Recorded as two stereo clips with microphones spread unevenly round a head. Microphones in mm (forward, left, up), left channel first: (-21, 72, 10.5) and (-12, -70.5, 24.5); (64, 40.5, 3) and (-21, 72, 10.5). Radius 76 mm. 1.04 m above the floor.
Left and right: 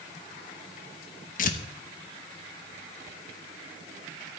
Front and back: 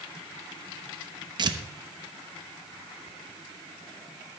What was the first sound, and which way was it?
Tearing paper, 120° left.